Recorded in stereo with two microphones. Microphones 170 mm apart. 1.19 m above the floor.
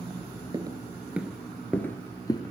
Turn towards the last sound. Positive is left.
turn(degrees=25)  # may be behind; listen again after turning